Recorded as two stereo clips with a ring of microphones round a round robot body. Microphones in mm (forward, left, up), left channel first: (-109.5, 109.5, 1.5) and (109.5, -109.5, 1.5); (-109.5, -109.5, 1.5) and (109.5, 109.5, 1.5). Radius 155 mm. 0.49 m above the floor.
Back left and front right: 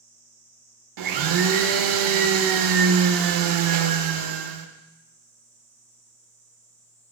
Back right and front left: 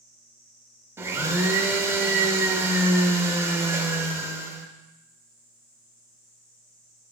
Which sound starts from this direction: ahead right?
A blender, at 1.0 s.